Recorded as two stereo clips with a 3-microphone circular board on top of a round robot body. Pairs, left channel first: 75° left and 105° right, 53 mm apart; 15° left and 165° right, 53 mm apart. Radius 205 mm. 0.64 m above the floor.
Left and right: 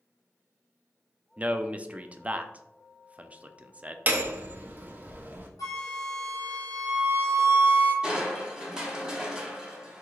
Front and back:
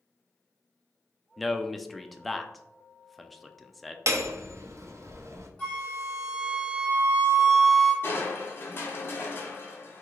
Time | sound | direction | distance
1.4 | a man speaking | 75° right | 0.5 m
4.1 | hammering | 155° right | 0.7 m
5.6 | a flute | 95° left | 0.5 m
8.0 | crushing | 30° right | 0.9 m